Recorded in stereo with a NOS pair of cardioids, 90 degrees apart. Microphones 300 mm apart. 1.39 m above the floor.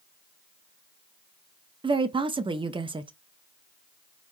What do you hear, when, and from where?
1.8 s a woman speaking: 15° right, 0.6 m